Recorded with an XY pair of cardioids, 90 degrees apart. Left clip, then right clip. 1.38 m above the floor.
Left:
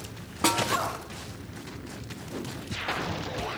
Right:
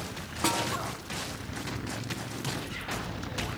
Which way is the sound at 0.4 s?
30° left.